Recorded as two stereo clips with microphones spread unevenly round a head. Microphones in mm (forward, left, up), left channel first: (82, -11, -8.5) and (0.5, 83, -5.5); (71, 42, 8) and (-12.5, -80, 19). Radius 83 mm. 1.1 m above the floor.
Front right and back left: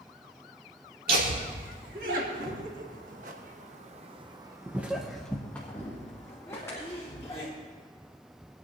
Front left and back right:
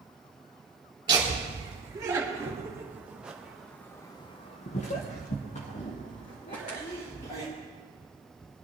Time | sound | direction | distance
1.1 | laughter | 170° left | 3.5 m